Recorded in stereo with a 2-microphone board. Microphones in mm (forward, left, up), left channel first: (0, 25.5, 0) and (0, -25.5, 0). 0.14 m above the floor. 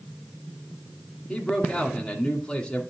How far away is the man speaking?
About 1.6 m.